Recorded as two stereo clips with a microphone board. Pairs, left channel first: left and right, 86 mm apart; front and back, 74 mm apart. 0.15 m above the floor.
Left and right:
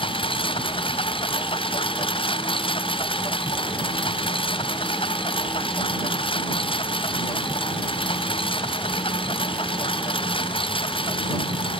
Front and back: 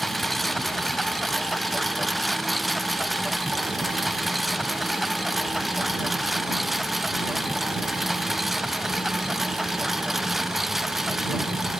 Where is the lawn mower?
85° left; by 11.8 s 90° left.